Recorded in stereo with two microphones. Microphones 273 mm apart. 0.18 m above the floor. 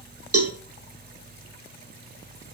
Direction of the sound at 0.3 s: 60° right (ahead or behind).